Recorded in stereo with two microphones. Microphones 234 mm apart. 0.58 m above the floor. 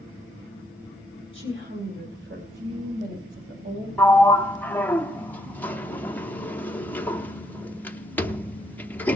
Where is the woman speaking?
60° right (ahead or behind), 1.9 m; by 3.9 s 50° right (ahead or behind), 3 m.